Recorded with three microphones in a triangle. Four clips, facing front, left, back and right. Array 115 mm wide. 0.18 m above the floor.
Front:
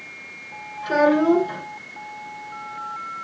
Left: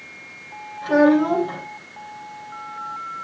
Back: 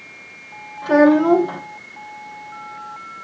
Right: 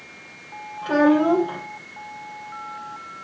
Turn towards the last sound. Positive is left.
turn(degrees=-175)